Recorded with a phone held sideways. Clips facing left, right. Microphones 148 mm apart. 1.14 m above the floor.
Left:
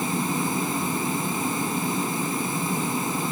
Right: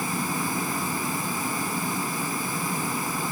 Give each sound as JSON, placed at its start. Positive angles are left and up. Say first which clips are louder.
{"t": 0.0, "sound": "a fan", "louder": "left 3 dB", "side_deg": 20}